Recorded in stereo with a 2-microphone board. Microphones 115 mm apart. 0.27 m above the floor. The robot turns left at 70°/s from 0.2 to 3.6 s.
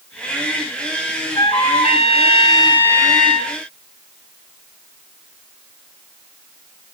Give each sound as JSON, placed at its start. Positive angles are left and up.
{"t": 1.4, "sound": "a trumpet", "azimuth_deg": 130, "distance_m": 4.0}